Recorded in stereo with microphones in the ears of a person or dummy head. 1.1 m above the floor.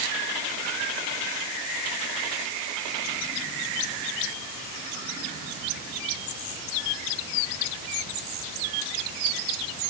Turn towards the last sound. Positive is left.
No sound to turn to.